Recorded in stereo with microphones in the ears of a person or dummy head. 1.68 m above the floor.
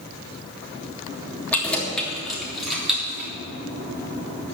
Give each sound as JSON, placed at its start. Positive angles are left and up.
{"t": 1.5, "sound": "keys jangling", "side_deg": 10, "distance_m": 3.0}